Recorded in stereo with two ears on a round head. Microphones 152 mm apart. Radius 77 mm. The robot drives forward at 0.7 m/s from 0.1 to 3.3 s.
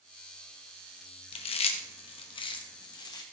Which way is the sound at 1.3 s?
35° left (ahead or behind).